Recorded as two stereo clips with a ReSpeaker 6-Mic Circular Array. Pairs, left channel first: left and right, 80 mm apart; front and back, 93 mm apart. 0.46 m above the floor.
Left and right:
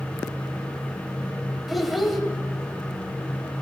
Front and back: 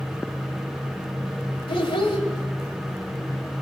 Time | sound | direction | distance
1.7 | a child speaking | straight ahead | 1.7 m